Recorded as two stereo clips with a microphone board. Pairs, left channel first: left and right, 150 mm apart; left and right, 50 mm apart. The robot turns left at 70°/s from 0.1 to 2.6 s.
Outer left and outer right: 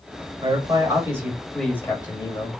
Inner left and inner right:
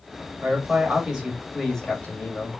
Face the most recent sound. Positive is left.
turn(degrees=100)